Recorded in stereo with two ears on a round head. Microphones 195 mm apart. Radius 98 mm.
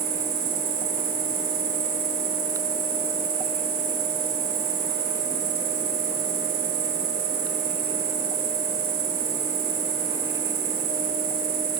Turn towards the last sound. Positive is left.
turn(degrees=-65)  # may be behind; listen again after turning